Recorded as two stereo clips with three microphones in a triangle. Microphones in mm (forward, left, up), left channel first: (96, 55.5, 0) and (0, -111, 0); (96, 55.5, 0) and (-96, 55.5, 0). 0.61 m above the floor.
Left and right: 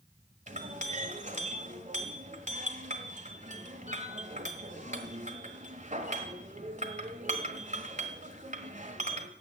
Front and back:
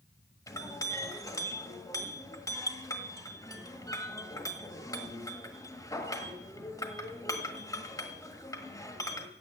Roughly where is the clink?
Right.